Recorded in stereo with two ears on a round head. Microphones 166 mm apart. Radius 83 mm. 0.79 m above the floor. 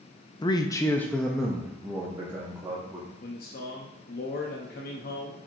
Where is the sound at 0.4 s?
25° left (ahead or behind), 0.5 m; by 3.1 s 15° right (ahead or behind), 1.3 m.